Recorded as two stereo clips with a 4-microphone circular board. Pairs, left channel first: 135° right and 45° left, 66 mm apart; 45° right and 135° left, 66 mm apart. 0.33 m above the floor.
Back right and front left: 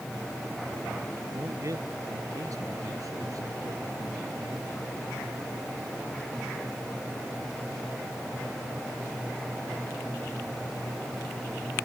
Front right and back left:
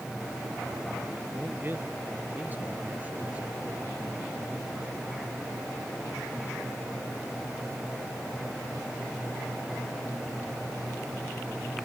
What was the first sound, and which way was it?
A man speaking, 80° left.